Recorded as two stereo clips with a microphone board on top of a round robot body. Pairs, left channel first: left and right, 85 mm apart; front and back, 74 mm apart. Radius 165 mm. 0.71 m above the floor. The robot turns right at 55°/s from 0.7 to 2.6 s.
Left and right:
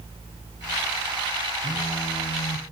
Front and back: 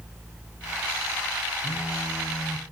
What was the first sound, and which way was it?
A phone buzzing, 45° left.